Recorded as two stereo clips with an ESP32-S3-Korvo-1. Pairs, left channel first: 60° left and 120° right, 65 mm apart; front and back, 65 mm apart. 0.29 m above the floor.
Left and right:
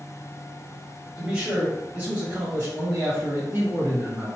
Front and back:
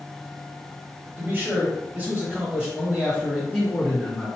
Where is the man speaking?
Straight behind, 1.6 m; by 4.3 s 95° right, 2 m.